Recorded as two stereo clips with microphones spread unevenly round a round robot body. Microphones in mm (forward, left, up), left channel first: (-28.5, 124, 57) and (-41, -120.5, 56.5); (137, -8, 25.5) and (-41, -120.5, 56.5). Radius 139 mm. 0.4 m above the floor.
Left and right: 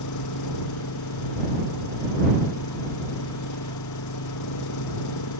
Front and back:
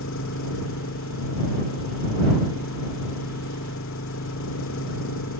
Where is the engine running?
75° left.